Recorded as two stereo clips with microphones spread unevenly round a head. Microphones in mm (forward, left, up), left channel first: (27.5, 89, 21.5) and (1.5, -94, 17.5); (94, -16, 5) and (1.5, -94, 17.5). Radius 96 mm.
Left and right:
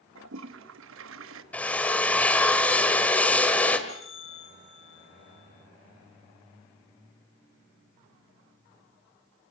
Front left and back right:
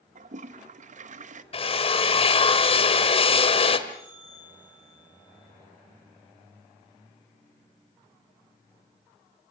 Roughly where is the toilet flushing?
Behind right.